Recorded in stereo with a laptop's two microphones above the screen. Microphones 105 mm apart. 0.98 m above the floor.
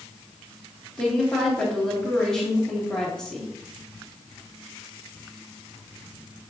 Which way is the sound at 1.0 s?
5° left (ahead or behind).